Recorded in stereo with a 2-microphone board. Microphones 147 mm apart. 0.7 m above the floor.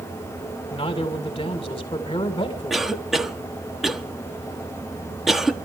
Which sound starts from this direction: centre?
A cough, at 2.7 s.